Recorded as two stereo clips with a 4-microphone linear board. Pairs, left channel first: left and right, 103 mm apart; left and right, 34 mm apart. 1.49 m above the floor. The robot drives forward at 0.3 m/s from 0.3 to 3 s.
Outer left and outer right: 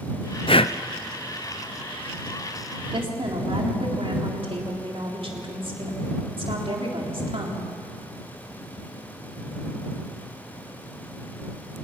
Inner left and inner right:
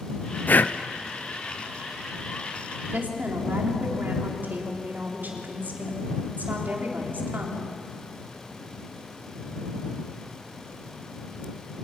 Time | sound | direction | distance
0.5 | breathing | 60° left (ahead or behind) | 0.7 m
2.9 | a woman speaking | 65° right (ahead or behind) | 3.5 m